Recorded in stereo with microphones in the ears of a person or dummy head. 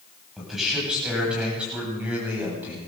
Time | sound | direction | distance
0.4 | a man speaking | 5° right (ahead or behind) | 10 m